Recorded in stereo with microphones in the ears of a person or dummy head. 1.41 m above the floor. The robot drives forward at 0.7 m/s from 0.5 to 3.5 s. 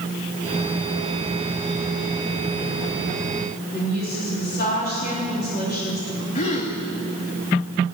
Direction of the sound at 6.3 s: 40° left (ahead or behind).